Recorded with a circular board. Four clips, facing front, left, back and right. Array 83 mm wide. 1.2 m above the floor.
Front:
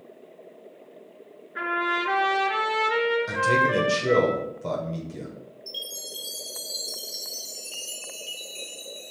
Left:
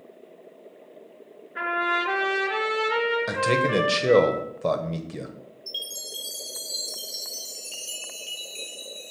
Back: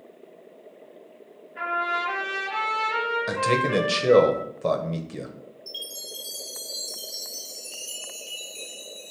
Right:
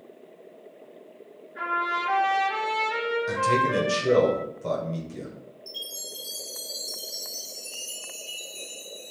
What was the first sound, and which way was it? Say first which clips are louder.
A trumpet: left 2 dB, even; 35° left.